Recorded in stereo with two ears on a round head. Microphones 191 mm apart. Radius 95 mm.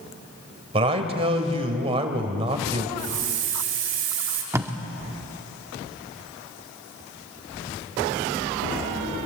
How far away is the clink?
No clink in this recording.